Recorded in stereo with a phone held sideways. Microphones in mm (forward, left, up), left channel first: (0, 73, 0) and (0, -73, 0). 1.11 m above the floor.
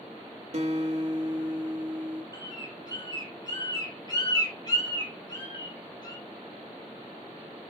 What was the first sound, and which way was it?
A guitar, 50° right (ahead or behind).